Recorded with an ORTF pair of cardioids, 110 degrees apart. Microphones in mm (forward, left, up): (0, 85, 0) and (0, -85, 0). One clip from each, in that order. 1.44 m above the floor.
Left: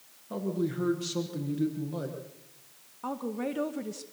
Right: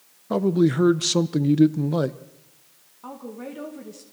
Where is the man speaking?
65° right, 1.0 m.